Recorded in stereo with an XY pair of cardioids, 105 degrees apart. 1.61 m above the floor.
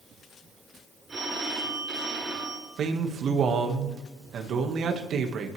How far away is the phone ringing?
About 10 m.